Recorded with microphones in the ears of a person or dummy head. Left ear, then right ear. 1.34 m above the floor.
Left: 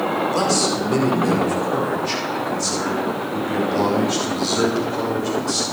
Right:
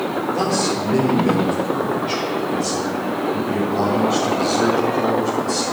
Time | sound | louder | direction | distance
0.3 | a man speaking | right 1 dB | 85° left | 5 m